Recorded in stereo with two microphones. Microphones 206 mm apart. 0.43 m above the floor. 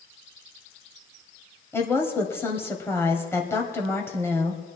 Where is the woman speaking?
10° left (ahead or behind), 2 m.